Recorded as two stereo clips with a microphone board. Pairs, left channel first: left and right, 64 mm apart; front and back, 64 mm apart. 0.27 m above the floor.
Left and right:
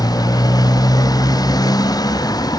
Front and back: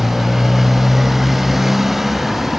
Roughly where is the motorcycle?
Left.